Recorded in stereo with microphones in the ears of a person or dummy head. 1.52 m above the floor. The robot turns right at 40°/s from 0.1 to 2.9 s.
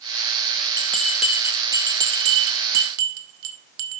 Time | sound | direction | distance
0.8 | a bell | 10° left (ahead or behind) | 0.9 m